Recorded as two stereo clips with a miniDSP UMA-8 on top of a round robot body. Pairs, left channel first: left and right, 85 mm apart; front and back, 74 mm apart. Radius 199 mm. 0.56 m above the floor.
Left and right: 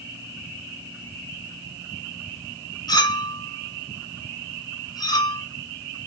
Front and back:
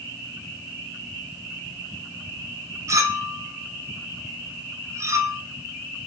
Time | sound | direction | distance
2.9 | a clink | 130° left | 0.6 m